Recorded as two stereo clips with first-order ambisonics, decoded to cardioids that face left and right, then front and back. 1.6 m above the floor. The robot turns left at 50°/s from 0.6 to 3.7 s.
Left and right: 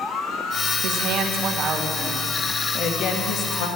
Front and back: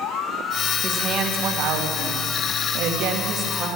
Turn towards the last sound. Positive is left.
turn(degrees=100)